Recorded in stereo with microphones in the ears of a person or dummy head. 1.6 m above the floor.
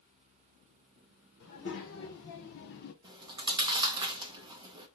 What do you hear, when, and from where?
1.4 s a child speaking: 55° left (ahead or behind), 1.7 m; by 2.9 s 45° left (ahead or behind), 0.7 m
3.0 s chewing: 20° right (ahead or behind), 0.6 m